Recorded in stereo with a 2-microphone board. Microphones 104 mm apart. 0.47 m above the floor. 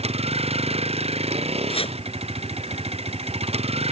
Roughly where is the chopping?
Left.